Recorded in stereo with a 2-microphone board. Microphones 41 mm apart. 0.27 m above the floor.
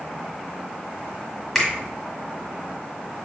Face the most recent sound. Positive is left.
turn(degrees=0)  # may be behind; listen again after turning